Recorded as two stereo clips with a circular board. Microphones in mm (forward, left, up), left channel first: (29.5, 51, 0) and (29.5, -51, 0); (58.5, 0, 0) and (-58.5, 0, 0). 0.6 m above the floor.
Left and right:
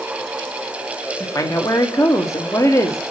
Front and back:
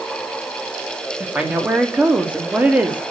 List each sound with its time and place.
1.2 s a woman speaking: 110° left, 1.2 m